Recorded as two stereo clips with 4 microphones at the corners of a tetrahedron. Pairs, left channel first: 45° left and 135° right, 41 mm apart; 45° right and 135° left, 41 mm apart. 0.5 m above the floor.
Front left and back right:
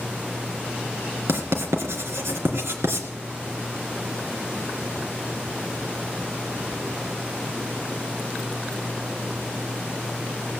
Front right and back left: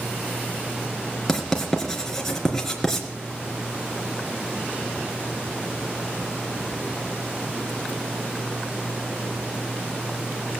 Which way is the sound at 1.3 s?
125° right.